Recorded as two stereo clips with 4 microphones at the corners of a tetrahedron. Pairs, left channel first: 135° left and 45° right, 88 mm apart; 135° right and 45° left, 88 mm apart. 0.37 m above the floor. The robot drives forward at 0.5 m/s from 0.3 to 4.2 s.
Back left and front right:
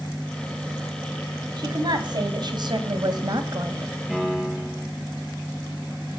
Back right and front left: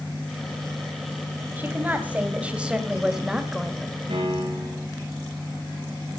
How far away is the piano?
About 5.5 m.